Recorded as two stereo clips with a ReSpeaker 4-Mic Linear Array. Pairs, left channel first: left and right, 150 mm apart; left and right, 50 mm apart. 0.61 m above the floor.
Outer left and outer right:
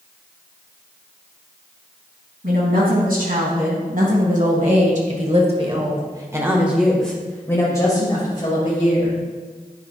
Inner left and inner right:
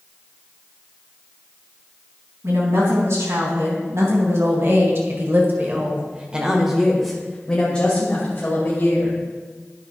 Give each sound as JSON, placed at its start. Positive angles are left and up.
{"t": 2.4, "sound": "a woman speaking", "side_deg": -80, "distance_m": 4.0}